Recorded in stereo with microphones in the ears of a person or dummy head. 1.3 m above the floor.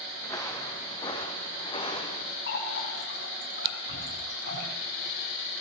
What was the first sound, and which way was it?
Footsteps, 15° left (ahead or behind).